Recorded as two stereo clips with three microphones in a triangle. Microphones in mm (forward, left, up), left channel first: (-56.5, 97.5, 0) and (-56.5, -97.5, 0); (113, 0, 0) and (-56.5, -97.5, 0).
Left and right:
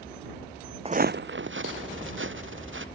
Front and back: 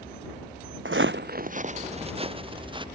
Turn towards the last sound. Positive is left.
turn(degrees=-85)